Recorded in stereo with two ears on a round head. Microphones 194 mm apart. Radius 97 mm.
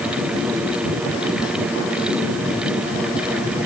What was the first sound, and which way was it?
Only background noise.